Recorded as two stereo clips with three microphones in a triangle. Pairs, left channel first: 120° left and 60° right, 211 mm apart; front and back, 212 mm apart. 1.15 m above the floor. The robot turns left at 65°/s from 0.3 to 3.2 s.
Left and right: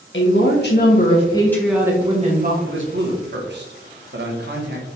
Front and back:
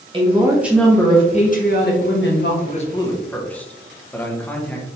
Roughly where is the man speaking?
Ahead right.